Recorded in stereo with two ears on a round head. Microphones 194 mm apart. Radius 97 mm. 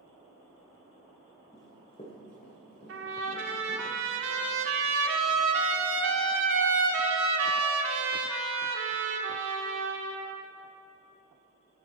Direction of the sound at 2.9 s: 65° right (ahead or behind).